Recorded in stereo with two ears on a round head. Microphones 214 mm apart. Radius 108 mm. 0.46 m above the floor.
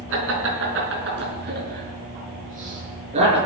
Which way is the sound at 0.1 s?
60° right (ahead or behind).